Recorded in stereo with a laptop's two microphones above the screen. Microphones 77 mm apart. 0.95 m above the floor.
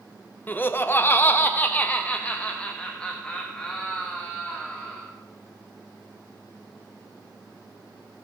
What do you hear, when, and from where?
0.5 s laughter: 25° left (ahead or behind), 0.6 m; by 5.0 s 10° left (ahead or behind), 2.5 m